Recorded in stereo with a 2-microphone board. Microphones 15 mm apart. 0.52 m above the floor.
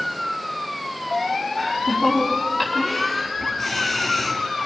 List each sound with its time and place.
1.6 s laughter: 15° left (ahead or behind), 5.5 m